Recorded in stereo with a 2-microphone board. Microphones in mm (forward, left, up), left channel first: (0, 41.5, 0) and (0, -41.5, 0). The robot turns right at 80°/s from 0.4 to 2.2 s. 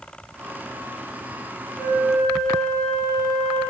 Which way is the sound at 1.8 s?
145° left.